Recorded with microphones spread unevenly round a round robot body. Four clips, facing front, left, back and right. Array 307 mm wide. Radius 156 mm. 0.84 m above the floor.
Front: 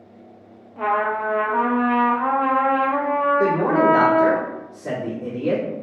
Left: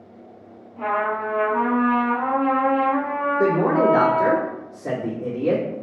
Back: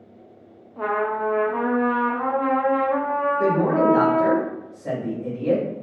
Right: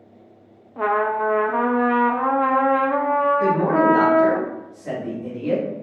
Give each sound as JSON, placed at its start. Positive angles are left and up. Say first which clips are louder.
{"t": 0.8, "sound": "a trumpet", "louder": "right 3 dB, front 2 dB", "azimuth_deg": -80, "distance_m": 0.6}
{"t": 3.4, "sound": "a man speaking", "louder": "even, back 1 dB", "azimuth_deg": 65, "distance_m": 1.9}